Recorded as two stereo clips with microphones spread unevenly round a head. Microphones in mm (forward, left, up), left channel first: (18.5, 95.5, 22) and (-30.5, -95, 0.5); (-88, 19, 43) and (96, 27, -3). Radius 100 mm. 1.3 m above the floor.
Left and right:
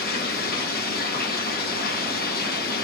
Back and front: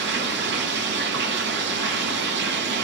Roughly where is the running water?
Ahead left.